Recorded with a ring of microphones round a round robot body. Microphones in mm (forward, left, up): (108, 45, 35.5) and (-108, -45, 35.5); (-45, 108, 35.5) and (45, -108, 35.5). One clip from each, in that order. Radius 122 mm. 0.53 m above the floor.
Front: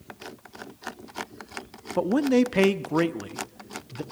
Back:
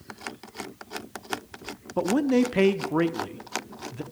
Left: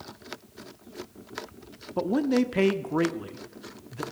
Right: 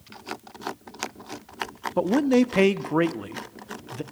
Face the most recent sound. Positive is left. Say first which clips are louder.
# front 1 dB, right 4 dB
turn(degrees=-35)